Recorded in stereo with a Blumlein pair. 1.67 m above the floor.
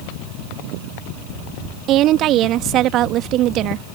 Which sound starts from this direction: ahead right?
A woman speaking, at 1.9 s.